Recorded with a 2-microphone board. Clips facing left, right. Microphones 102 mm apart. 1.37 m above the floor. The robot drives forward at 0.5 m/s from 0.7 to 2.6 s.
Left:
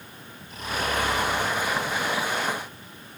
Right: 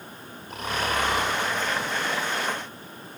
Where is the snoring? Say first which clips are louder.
Right 1 dB; 70° right (ahead or behind), 3 m; by 1.4 s 65° right (ahead or behind), 3 m.